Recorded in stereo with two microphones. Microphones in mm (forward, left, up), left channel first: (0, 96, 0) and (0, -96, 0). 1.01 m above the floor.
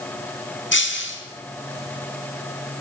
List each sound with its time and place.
0.7 s breaking glass: 80° left, 4 m